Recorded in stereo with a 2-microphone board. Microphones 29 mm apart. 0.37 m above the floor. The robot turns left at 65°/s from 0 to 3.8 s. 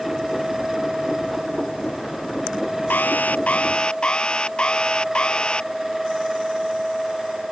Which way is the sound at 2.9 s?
90° left.